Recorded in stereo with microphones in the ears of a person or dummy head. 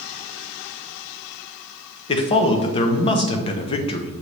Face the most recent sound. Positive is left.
turn(degrees=35)  # may be behind; listen again after turning